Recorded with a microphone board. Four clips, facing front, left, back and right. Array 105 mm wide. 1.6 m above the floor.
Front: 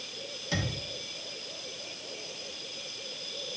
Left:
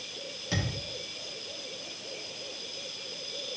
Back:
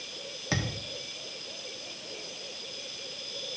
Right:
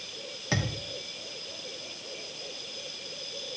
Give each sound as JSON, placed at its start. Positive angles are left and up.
{"t": 0.5, "sound": "a thud", "azimuth_deg": -140, "distance_m": 1.4}